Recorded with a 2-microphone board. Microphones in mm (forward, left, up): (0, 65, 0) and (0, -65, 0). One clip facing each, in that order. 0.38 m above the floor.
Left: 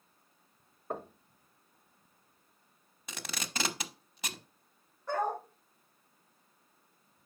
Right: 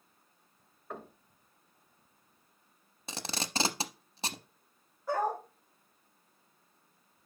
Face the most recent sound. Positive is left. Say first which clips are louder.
# right 1 dB
turn(degrees=-5)  # may be behind; listen again after turning